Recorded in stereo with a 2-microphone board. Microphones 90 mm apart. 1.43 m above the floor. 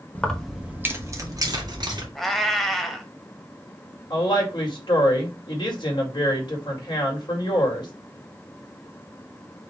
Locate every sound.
0.1 s keys jangling: 20° left (ahead or behind), 0.9 m; by 2.0 s 55° right (ahead or behind), 1.9 m
2.1 s a cat meowing: 5° left (ahead or behind), 0.9 m
4.1 s a woman speaking: 60° left (ahead or behind), 2 m